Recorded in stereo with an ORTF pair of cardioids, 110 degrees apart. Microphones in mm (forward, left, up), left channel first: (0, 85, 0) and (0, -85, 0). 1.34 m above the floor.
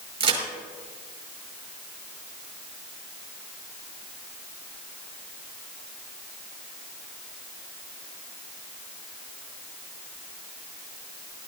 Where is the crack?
40° right, 5 m.